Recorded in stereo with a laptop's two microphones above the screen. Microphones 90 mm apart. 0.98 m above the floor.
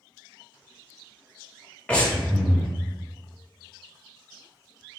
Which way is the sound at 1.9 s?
10° left (ahead or behind).